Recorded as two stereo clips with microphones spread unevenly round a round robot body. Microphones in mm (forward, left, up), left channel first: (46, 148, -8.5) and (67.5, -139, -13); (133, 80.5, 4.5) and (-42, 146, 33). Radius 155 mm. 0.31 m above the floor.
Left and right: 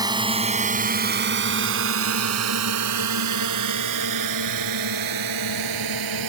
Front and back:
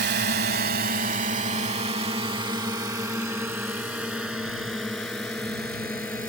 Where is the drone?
160° right; by 6.3 s 105° right.